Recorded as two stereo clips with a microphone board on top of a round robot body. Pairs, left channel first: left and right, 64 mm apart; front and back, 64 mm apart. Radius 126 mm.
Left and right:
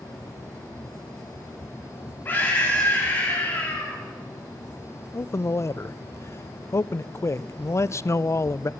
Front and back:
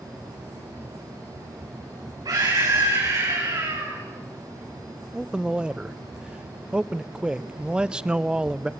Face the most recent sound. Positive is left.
turn(degrees=110)